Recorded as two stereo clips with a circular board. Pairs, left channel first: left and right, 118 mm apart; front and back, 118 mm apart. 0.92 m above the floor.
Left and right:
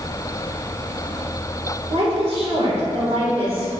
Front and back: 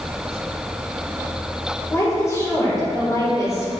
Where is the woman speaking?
65° right, 3.5 m.